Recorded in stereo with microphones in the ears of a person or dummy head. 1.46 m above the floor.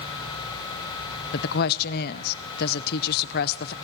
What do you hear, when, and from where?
1.3 s a woman speaking: 60° left (ahead or behind), 0.5 m